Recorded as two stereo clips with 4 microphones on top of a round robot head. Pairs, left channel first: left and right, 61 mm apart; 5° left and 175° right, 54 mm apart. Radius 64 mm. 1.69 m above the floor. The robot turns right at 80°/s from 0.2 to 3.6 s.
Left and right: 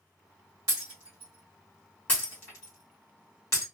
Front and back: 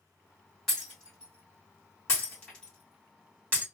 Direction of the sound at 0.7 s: 80° right.